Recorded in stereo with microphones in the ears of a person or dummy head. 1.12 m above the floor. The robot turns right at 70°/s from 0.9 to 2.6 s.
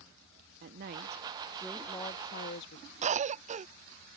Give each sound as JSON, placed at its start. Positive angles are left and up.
{"t": 0.6, "sound": "a woman speaking", "azimuth_deg": -50}
{"t": 3.0, "sound": "a cough", "side_deg": -40}